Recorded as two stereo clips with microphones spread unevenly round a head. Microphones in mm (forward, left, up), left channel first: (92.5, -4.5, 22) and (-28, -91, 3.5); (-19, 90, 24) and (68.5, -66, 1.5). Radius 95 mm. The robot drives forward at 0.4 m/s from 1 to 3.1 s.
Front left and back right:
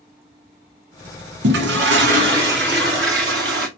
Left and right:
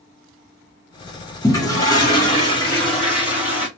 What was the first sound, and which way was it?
A toilet flushing, 165° right.